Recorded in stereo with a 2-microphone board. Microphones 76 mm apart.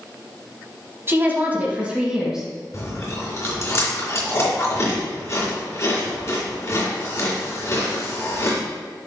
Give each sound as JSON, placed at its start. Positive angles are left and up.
{"t": 1.1, "sound": "a woman speaking", "side_deg": -30, "distance_m": 1.4}
{"t": 2.7, "sound": "chewing", "side_deg": 40, "distance_m": 2.5}